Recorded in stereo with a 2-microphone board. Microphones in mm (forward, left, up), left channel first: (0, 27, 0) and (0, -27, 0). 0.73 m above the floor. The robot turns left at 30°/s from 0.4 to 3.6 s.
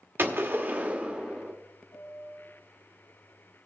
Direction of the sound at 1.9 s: 65° left (ahead or behind).